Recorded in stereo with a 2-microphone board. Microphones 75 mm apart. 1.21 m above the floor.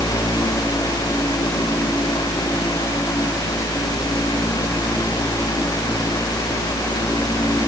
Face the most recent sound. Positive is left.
No sound to turn to.